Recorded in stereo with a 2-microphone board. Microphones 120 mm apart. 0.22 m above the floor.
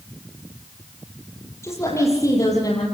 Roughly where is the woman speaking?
Left.